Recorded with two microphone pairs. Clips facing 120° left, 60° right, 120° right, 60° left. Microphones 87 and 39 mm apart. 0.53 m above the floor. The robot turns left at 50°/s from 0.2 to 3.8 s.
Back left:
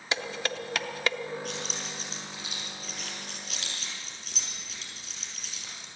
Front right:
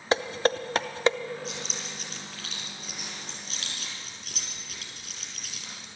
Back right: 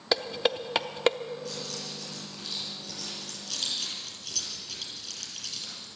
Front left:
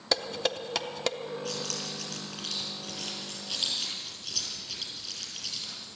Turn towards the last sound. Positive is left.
turn(degrees=-20)